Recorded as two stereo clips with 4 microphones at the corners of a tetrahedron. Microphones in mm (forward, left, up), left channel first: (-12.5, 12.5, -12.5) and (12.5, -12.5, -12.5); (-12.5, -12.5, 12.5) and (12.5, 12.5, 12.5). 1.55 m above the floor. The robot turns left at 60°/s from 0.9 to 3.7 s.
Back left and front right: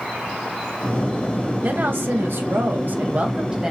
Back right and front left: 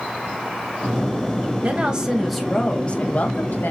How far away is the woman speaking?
About 2 m.